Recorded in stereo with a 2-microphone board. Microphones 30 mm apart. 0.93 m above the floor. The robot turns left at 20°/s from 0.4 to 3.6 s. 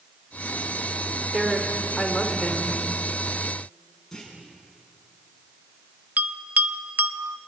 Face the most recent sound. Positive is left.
turn(degrees=-65)  # may be behind; listen again after turning